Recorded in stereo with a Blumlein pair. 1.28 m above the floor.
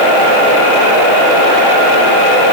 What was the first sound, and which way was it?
Only background noise.